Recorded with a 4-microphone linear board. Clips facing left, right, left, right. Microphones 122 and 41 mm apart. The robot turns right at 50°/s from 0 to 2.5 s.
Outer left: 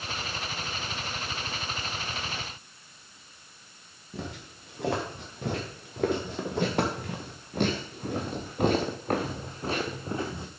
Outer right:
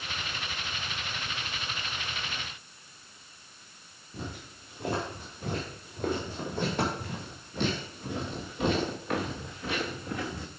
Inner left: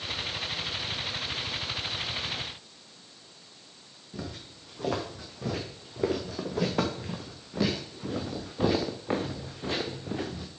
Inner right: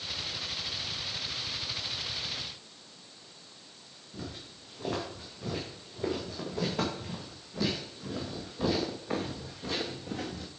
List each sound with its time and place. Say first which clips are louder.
4.1 s footsteps: outer left 2 dB, inner left 3 dB; 75° left (ahead or behind), 4.5 m; by 10.5 s 25° left (ahead or behind), 1.7 m